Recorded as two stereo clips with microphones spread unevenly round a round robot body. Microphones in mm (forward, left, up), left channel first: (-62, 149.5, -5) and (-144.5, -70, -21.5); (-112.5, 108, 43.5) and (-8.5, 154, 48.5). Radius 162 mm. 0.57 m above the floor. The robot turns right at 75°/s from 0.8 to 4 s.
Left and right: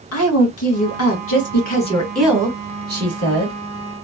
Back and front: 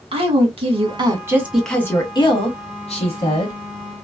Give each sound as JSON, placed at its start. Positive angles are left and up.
{"t": 0.1, "sound": "a woman speaking", "azimuth_deg": 55, "distance_m": 1.7}